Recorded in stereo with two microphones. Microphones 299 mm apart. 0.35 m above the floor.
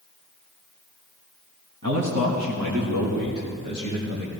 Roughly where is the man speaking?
Right.